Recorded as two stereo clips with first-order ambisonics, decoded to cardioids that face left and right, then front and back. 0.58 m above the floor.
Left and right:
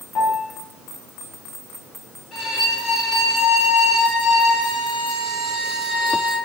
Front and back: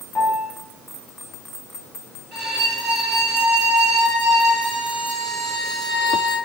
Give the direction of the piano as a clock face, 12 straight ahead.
9 o'clock.